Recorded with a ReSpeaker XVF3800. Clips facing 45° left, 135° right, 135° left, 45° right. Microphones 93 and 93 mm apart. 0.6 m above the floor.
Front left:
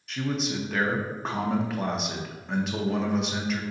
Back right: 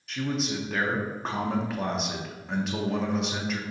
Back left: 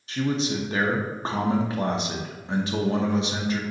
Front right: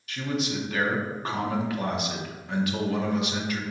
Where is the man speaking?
135° left, 0.6 m.